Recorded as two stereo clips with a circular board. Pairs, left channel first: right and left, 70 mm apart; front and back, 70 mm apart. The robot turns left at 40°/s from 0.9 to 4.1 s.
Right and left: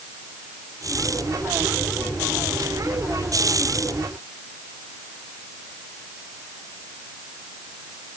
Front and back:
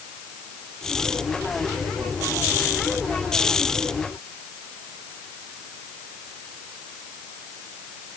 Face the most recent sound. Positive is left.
No sound to turn to.